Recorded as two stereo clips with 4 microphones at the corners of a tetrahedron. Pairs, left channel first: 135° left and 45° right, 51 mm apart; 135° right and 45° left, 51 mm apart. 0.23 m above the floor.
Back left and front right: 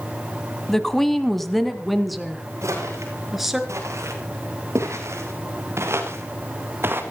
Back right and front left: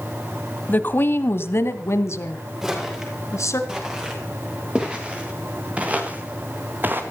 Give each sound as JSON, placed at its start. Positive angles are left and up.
{"t": 0.7, "sound": "a woman speaking", "azimuth_deg": -150, "distance_m": 1.3}
{"t": 2.6, "sound": "footsteps", "azimuth_deg": -35, "distance_m": 8.5}